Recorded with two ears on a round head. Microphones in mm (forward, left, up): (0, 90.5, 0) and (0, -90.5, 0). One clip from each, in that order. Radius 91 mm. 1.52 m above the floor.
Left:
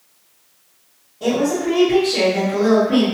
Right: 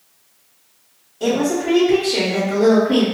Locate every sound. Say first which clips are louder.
1.2 s a woman speaking: even; 55° right (ahead or behind), 1.3 m